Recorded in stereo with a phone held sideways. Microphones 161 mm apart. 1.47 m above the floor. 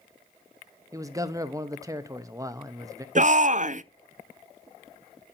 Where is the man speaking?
20° right (ahead or behind), 0.8 m.